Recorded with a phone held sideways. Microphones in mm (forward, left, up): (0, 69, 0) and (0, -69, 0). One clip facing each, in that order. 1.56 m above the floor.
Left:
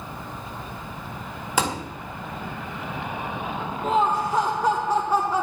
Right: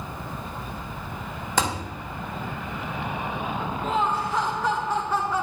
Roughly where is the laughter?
Left.